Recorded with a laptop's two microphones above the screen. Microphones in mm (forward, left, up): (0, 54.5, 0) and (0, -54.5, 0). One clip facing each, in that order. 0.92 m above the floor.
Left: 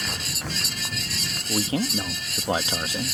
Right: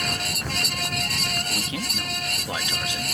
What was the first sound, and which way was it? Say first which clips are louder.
A fan: right 3 dB; 55° right (ahead or behind).